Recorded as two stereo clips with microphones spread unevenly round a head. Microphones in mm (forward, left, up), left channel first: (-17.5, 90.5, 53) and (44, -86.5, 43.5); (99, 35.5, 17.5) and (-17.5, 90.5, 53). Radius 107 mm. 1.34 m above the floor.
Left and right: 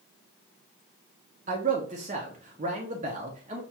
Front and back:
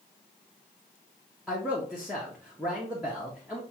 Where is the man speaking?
125° right, 0.5 m.